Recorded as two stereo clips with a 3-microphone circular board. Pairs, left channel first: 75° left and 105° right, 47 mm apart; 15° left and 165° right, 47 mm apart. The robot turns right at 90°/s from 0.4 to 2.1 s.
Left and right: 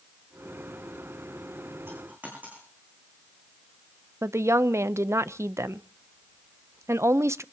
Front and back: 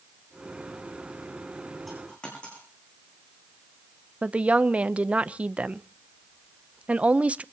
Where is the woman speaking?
105° right, 0.5 m.